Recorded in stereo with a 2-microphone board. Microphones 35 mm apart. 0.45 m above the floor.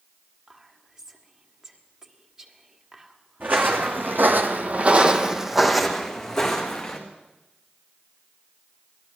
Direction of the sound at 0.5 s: 15° right (ahead or behind).